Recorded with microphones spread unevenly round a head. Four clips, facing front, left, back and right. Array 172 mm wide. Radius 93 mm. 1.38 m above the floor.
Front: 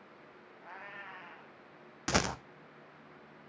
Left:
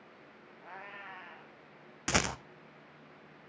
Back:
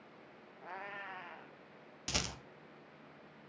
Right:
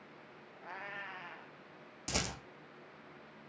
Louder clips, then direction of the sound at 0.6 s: Right 1 dB, back 2 dB; straight behind.